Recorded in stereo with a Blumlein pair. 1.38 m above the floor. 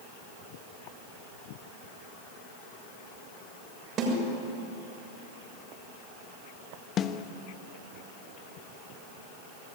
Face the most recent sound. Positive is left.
turn(degrees=30)